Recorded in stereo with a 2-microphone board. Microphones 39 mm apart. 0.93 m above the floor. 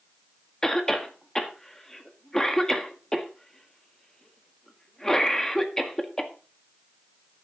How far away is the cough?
About 1.7 m.